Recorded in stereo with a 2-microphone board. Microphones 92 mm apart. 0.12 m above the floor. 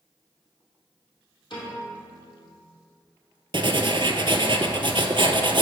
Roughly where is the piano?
Left.